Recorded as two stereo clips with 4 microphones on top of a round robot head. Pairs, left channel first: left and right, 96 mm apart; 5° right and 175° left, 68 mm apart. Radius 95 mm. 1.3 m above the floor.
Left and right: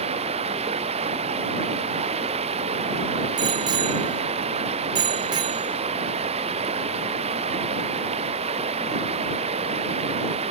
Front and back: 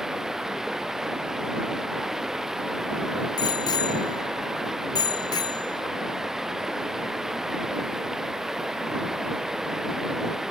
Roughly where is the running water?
Right.